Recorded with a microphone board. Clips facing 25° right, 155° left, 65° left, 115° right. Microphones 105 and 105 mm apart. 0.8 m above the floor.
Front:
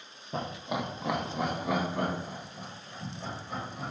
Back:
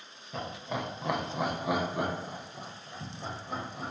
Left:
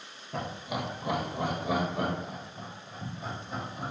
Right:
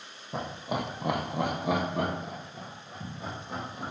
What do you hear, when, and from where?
0.3 s laughter: 55° right, 0.5 m; by 3.9 s 135° right, 2.5 m